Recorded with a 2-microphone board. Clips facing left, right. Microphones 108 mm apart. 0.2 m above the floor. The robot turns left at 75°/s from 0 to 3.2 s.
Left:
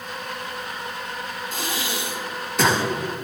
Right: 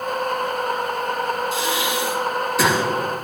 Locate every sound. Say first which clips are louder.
1.5 s breathing: right 6 dB; 50° left (ahead or behind), 2.5 m; by 2.8 s 15° right (ahead or behind), 2.5 m